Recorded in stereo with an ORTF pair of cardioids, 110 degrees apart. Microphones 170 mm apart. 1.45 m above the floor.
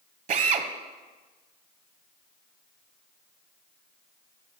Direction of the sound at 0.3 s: 50° right.